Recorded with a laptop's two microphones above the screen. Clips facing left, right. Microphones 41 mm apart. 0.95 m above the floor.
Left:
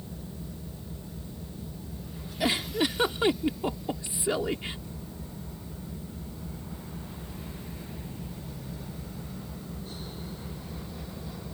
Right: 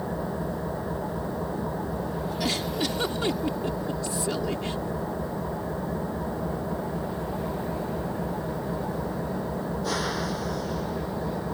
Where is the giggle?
20° left (ahead or behind).